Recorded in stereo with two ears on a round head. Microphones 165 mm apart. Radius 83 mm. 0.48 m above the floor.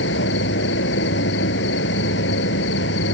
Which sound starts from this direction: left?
An insect, at 0.0 s.